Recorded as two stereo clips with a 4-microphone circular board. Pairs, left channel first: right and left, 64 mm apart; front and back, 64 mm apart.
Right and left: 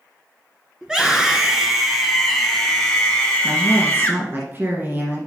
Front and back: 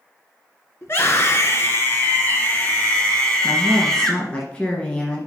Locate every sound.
0.8 s a scream: 15° left, 2 m; by 4.4 s 75° right, 1.9 m
3.4 s a woman speaking: 60° left, 1.7 m